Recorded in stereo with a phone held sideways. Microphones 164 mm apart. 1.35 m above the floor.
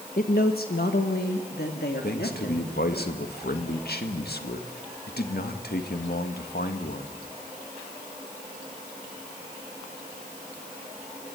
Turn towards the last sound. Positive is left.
turn(degrees=75)  # may be behind; listen again after turning